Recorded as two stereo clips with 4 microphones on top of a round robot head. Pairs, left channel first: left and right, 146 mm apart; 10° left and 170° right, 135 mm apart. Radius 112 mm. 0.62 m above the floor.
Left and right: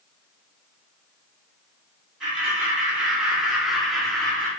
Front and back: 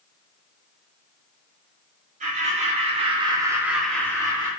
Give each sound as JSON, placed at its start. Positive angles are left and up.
{"t": 2.2, "sound": "laughter", "azimuth_deg": -170, "distance_m": 1.5}